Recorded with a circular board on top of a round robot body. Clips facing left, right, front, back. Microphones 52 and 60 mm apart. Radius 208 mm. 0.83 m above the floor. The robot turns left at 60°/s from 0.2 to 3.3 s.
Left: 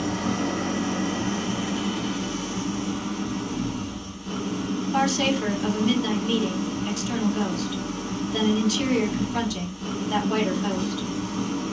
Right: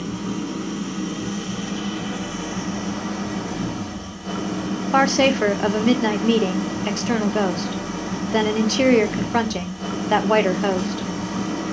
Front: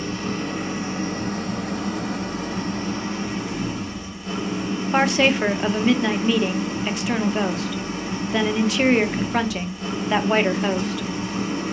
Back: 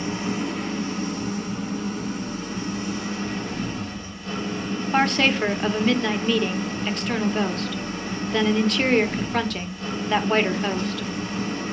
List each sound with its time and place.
0.0 s an engine running: 105° left, 2.5 m; by 11.7 s 80° right, 2.5 m
4.9 s a woman speaking: 85° right, 1.1 m